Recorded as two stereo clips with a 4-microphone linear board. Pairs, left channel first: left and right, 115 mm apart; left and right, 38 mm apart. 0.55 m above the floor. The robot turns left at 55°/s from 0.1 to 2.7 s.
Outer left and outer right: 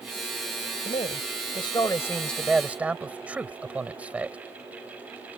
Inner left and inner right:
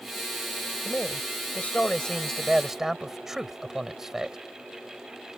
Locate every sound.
0.8 s a man speaking: 90° left; by 4.4 s 15° right